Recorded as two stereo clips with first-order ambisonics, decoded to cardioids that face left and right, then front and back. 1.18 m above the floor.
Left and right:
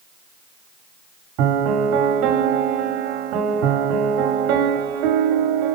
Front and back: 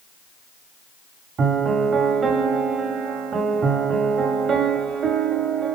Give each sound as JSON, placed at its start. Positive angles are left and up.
{"t": 1.4, "sound": "a piano", "azimuth_deg": -115, "distance_m": 2.0}